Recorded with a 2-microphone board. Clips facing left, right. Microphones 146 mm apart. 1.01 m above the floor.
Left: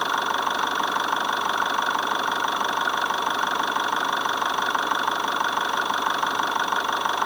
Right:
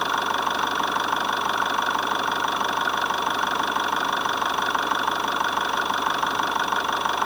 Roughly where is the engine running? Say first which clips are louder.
Even; centre.